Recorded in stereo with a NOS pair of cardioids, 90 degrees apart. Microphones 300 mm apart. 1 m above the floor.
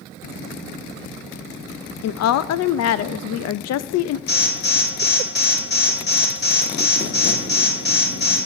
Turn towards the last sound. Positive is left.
turn(degrees=40)